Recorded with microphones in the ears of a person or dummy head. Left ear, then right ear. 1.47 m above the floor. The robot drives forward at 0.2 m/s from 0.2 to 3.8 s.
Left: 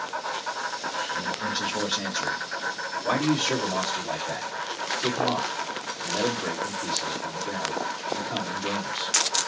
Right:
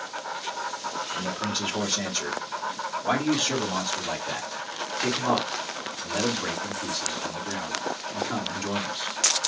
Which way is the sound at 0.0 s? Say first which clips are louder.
Left 2 dB; 50° left (ahead or behind).